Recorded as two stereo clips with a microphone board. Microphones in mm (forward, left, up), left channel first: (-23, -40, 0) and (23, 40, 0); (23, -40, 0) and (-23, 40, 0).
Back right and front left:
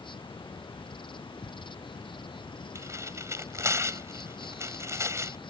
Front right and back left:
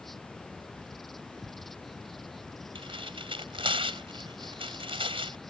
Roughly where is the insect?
Behind right.